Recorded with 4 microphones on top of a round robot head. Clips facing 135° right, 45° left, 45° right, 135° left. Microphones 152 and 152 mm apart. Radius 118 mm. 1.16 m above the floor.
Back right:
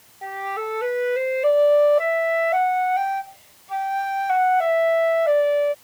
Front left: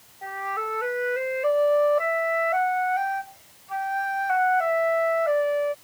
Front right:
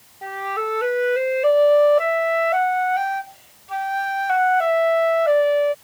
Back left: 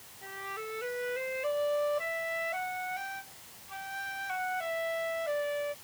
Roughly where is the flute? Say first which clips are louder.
Back right 3 dB, front right 15 dB; right.